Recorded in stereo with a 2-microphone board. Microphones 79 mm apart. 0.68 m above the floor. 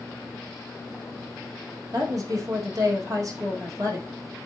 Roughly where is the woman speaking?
Right.